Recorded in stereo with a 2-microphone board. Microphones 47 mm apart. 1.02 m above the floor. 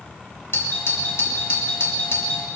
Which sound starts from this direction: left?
A doorbell, at 0.5 s.